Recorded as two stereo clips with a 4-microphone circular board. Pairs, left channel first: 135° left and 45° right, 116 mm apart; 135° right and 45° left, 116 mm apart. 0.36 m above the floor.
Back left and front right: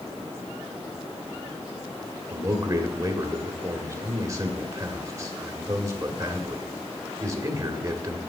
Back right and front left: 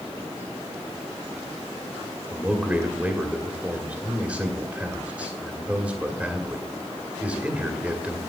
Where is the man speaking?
25° right, 1.5 m.